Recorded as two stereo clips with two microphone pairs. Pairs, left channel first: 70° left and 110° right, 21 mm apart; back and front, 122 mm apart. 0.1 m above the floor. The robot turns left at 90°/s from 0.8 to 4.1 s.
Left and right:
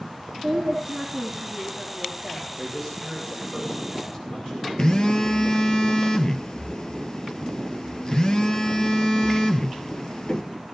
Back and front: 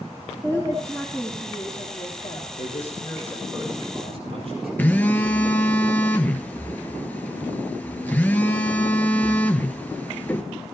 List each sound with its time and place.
0.4 s a woman speaking: 50° right, 3 m; by 2.6 s 150° left, 3 m
2.6 s a man speaking: 170° left, 7 m; by 4.7 s 30° left, 7 m
4.8 s a phone buzzing: 105° left, 1.2 m